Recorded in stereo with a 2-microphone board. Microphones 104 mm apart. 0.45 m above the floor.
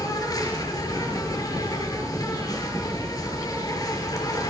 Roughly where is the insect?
Left.